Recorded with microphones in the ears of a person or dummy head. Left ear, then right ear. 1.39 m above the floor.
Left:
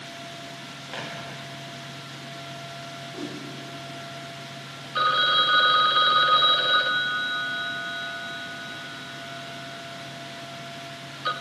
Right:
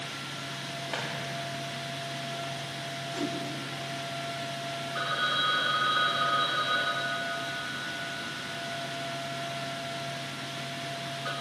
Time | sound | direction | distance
0.9 | footsteps | centre (ahead or behind) | 4 m
3.1 | a whoosh | 15° right (ahead or behind) | 4 m
5.0 | a phone ringing | 40° left (ahead or behind) | 0.6 m